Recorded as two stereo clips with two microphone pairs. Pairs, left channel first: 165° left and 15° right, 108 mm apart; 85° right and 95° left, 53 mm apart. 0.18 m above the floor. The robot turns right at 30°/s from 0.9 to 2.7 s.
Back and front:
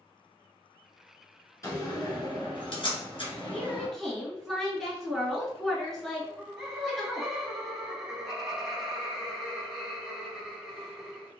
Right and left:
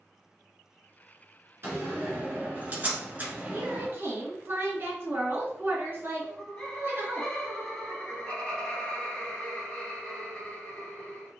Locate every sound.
1.6 s a door slam: 115° left, 1.7 m; by 3.9 s 145° left, 1.7 m
3.5 s a woman speaking: 70° left, 1.8 m
6.2 s laughter: 105° right, 1.0 m